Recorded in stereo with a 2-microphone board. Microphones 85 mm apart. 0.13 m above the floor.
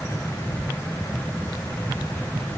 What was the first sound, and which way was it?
Only background noise.